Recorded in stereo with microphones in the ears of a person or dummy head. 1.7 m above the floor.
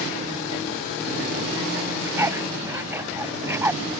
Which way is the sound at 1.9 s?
20° right (ahead or behind).